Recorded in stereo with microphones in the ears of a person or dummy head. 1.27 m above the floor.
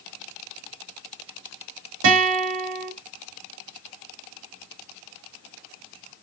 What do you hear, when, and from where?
2.0 s a guitar: 70° right (ahead or behind), 2.5 m